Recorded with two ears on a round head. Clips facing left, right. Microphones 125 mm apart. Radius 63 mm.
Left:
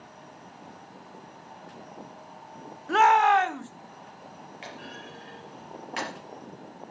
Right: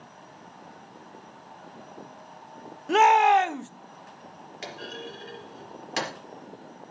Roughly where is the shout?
Right.